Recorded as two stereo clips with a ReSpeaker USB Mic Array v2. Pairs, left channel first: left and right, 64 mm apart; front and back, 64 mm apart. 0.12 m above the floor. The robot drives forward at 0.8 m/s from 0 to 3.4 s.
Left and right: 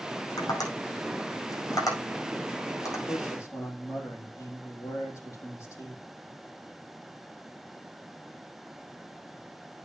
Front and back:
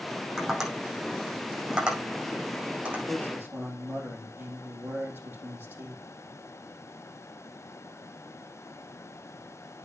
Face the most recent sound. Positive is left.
turn(degrees=125)